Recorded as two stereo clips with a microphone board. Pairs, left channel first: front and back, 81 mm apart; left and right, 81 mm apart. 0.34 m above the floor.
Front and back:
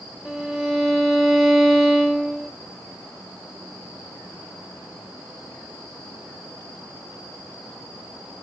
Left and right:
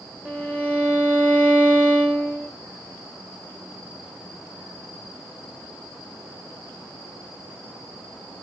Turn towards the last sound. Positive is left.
turn(degrees=-95)